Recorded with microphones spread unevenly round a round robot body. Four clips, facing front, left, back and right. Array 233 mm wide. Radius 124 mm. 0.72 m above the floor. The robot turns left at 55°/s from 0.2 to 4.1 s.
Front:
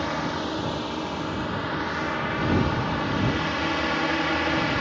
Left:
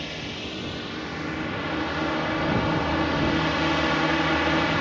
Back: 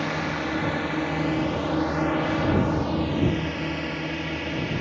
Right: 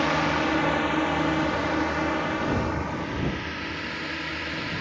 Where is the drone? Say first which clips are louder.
Right 11 dB, even; 80° right; by 4.8 s 65° left.